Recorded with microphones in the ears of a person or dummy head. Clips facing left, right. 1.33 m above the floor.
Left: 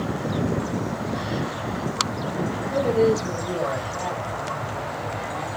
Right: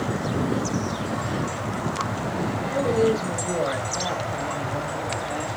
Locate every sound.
2.7 s a man speaking: 15° left (ahead or behind), 2.5 m; by 5.5 s 70° right (ahead or behind), 3.5 m